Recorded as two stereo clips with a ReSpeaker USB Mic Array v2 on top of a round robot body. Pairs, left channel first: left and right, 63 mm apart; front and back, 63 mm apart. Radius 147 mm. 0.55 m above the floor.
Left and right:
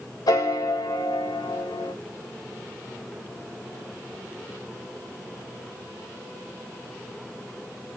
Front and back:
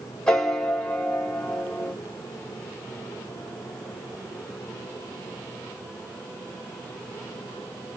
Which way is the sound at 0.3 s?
80° left.